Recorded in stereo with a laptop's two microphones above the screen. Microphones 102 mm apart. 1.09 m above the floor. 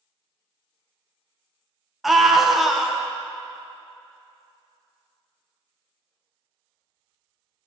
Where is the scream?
5° right (ahead or behind), 0.6 m.